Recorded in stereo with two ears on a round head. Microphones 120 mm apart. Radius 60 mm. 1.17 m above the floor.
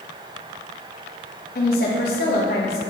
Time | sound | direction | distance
1.6 | a woman speaking | 75° left (ahead or behind) | 1.0 m